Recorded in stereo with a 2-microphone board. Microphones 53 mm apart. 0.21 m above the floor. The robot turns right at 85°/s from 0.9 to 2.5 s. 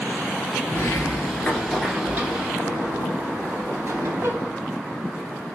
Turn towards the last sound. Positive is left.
turn(degrees=-125)